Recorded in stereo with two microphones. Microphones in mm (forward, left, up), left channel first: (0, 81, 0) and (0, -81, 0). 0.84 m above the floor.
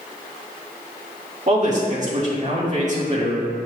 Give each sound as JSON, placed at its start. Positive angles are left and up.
{"t": 1.5, "sound": "a man speaking", "side_deg": -50, "distance_m": 1.6}